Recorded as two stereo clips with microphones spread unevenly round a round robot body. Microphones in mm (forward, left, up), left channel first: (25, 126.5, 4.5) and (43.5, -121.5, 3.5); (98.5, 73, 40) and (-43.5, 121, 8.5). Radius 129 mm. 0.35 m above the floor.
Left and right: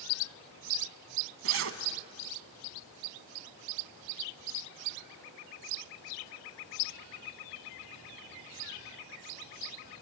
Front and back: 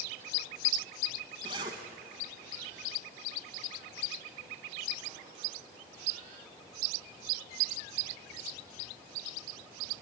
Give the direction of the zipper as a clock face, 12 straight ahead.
4 o'clock.